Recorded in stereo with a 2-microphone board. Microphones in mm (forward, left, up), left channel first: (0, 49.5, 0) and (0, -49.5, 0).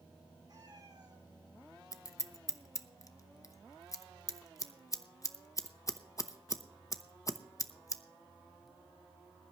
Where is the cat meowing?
45° right (ahead or behind), 3 m.